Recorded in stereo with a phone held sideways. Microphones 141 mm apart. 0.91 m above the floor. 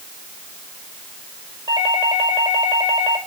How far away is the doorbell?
About 4.5 m.